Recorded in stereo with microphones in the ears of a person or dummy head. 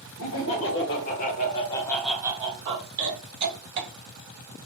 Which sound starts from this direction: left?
Laughter, at 0.2 s.